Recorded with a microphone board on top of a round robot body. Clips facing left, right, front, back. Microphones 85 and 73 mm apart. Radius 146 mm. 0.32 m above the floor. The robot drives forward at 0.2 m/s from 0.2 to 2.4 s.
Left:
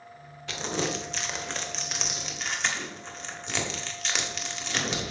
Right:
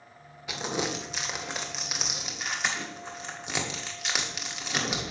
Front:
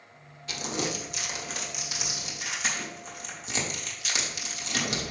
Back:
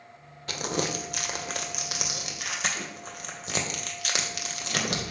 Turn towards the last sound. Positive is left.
turn(degrees=-170)